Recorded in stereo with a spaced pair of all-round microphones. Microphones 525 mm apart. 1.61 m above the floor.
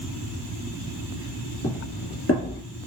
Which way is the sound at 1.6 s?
30° left (ahead or behind).